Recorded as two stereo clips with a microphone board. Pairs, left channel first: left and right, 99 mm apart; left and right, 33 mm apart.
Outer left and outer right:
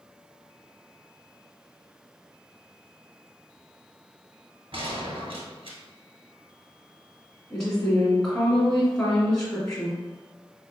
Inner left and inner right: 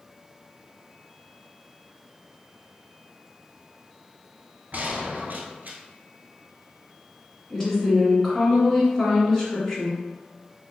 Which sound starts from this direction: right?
A gunshot, at 4.7 s.